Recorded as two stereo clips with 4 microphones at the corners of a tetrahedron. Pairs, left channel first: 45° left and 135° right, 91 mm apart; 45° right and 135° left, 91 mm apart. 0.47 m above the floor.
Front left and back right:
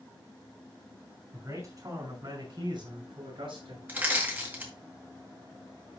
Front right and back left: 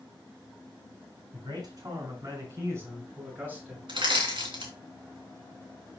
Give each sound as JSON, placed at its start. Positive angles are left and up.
{"t": 1.3, "sound": "a man speaking", "azimuth_deg": 170, "distance_m": 5.5}
{"t": 3.9, "sound": "crushing", "azimuth_deg": 155, "distance_m": 3.0}